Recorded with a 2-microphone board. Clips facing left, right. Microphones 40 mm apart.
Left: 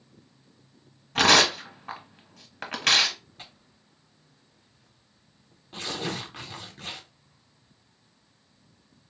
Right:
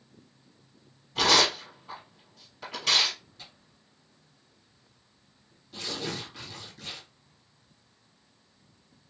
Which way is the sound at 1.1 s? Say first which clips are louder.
Left 4 dB; 70° left (ahead or behind).